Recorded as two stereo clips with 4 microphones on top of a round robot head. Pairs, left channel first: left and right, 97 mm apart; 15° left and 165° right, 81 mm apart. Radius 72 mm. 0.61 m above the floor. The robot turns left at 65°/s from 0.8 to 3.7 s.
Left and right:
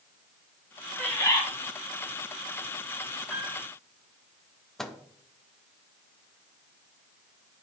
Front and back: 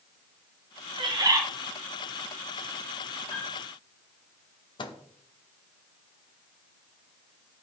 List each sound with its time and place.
1.0 s a bird: 170° left, 2.5 m; by 1.4 s 145° left, 2.5 m
3.3 s a piano: 5° right, 5.5 m; by 3.6 s 30° right, 5.5 m
4.8 s a microwave: 5° left, 1.1 m